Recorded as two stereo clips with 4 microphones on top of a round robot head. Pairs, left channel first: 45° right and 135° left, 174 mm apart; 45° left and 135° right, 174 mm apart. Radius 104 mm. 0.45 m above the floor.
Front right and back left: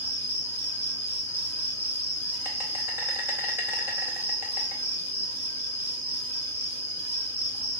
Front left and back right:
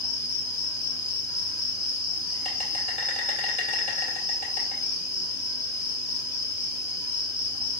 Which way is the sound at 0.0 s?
60° left.